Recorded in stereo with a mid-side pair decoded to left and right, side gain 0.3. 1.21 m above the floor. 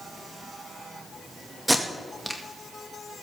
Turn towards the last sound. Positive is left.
turn(degrees=-5)